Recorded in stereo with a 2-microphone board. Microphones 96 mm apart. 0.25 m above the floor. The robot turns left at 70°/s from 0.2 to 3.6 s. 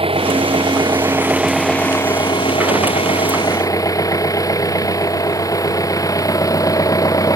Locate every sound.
0.0 s an engine running: 85° right; by 7.4 s 40° left